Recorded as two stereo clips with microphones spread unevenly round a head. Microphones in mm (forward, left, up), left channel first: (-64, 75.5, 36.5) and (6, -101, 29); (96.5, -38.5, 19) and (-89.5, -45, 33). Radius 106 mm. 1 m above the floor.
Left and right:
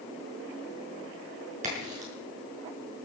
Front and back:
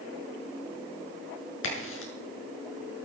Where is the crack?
10° right, 5.5 m.